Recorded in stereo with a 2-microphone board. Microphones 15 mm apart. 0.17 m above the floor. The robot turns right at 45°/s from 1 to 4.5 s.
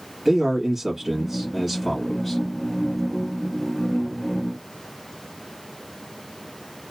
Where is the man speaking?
40° right, 1.2 m; by 2.4 s 20° left, 1.2 m.